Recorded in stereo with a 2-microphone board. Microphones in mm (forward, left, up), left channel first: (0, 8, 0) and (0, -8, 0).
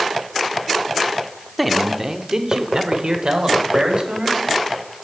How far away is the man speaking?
About 0.7 m.